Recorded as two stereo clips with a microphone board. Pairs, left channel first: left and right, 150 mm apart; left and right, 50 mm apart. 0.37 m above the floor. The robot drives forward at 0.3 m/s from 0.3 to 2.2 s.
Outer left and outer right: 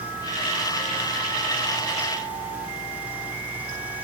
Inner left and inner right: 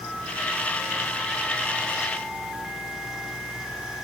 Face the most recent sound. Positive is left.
No sound to turn to.